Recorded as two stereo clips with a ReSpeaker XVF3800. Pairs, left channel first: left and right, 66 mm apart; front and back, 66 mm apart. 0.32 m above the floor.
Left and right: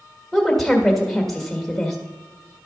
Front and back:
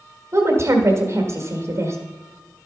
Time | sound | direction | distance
0.3 | a woman speaking | 175° left | 1.6 m